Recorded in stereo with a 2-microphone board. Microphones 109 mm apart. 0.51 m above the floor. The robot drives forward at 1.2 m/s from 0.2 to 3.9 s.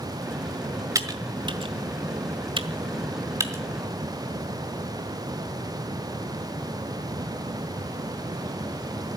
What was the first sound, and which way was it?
Typing on a keyboard, 35° right (ahead or behind).